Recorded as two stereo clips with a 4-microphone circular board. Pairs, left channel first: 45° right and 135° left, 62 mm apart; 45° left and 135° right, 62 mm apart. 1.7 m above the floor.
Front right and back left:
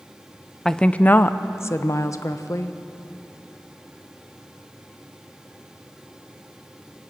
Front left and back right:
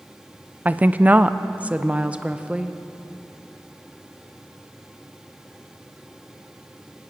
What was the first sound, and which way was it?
A woman speaking, 125° right.